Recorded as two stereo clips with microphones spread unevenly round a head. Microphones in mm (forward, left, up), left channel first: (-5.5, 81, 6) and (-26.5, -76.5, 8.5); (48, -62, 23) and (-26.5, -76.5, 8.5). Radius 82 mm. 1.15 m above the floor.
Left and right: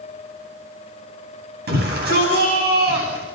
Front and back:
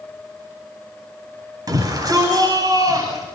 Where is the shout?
125° right, 10 m.